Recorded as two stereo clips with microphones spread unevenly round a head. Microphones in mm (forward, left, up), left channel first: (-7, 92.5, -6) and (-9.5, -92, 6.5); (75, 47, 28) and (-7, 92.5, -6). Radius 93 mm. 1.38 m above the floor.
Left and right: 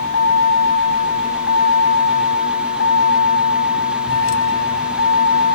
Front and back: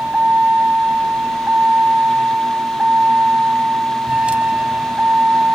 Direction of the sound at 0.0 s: 65° left.